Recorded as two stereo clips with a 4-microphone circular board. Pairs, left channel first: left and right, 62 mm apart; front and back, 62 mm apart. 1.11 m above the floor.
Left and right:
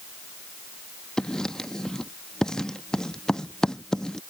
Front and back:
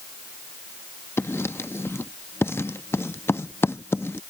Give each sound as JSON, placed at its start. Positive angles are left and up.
{"t": 1.2, "sound": "writing", "azimuth_deg": 20}